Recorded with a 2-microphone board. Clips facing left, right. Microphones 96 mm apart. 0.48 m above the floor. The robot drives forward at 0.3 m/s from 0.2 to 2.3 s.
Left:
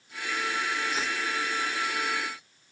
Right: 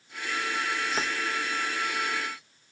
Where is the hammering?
No hammering in this recording.